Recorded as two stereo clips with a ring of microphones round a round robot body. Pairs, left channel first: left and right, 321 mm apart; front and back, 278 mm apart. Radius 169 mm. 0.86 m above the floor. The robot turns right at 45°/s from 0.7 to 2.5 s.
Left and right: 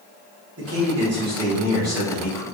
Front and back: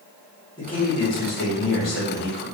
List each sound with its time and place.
0.6 s a man speaking: 70° right, 1.2 m; by 2.5 s 10° left, 1.2 m